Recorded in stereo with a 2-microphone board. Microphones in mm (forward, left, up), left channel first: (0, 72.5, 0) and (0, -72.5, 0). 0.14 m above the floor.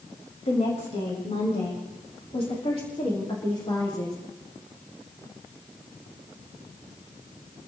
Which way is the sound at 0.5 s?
50° left (ahead or behind).